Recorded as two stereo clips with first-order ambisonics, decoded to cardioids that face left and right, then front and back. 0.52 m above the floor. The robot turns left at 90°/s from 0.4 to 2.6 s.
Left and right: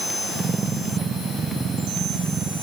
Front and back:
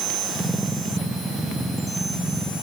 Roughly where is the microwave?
I don't hear a microwave.